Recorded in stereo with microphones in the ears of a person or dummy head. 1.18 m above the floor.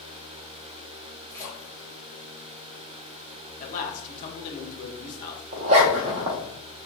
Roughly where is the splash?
Centre.